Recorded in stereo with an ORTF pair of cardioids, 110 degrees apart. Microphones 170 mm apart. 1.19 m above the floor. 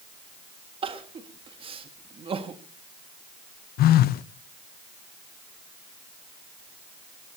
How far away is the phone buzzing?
About 0.7 m.